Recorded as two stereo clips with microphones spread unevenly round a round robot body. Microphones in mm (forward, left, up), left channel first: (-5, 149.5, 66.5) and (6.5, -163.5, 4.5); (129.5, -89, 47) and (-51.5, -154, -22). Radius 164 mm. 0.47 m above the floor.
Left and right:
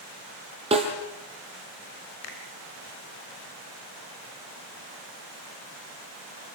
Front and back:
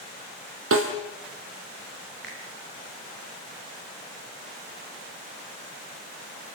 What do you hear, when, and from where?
0.7 s a snare drum: 160° right, 5.5 m
2.2 s a finger snap: 110° left, 4.5 m